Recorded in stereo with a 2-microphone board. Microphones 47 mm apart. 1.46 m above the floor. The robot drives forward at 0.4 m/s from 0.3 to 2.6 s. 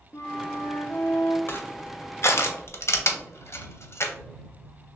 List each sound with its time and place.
0.1 s a flute: 70° left (ahead or behind), 0.6 m
1.5 s crushing: 55° left (ahead or behind), 0.7 m; by 4.1 s 65° left (ahead or behind), 0.6 m